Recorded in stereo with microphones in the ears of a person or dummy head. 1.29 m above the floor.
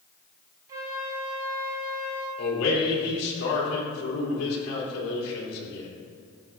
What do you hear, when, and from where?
0.7 s a flute: 15° right (ahead or behind), 0.7 m
2.4 s a man speaking: 85° left, 3.5 m